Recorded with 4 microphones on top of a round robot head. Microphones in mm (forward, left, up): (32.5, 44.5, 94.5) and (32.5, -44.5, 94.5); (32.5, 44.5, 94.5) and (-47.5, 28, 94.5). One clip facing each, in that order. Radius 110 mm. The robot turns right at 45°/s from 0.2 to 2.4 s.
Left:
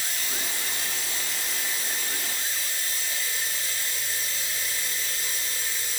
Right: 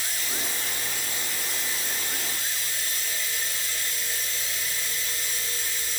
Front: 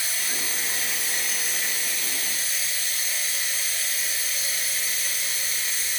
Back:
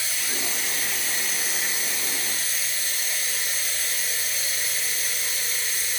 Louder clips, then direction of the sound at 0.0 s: Even, back 1 dB; 50° left.